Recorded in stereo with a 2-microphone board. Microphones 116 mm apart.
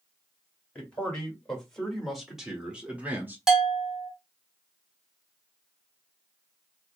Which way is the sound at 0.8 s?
10° left (ahead or behind).